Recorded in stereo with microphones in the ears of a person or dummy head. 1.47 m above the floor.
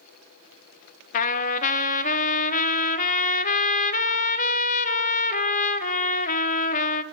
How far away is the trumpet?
About 0.5 m.